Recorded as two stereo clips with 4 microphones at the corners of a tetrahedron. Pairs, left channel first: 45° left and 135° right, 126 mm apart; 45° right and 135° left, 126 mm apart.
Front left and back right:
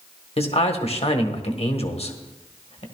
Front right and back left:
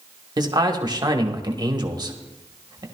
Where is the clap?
I don't hear a clap.